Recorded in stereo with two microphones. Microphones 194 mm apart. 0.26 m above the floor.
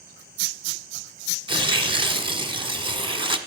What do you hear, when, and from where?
1.5 s tearing paper: 25° right (ahead or behind), 1.3 m